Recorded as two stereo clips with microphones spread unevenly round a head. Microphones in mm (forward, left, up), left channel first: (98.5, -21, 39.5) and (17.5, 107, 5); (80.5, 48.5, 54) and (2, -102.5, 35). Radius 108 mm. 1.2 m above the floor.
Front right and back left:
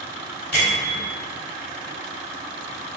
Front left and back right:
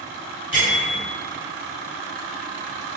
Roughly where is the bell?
Ahead.